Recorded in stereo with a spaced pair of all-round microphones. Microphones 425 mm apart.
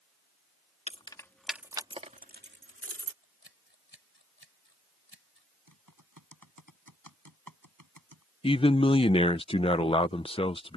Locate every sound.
0.9 s keys jangling: 15° left (ahead or behind); by 3.1 s 35° right (ahead or behind)
3.2 s scissors: 70° left (ahead or behind)
5.7 s typing on a keyboard: 45° right (ahead or behind)
8.4 s a man speaking: 15° left (ahead or behind)